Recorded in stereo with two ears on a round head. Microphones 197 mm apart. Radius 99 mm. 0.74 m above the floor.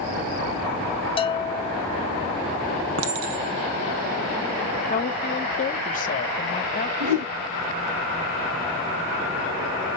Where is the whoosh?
75° right (ahead or behind), 6.5 m.